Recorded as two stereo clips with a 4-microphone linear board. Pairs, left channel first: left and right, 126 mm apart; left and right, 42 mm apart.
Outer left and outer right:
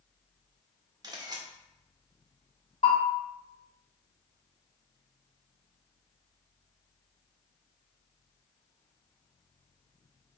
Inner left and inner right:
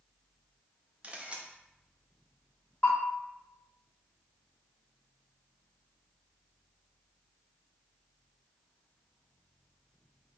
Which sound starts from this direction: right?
A camera shutter, at 1.0 s.